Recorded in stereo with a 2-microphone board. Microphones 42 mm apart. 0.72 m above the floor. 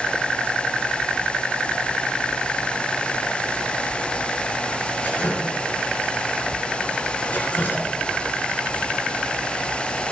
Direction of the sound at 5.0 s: 45° left (ahead or behind).